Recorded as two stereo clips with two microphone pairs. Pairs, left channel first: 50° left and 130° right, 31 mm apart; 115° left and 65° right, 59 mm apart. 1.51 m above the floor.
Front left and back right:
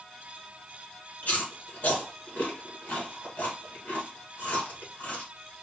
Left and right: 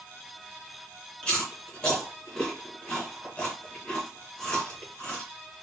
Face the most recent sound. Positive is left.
turn(degrees=45)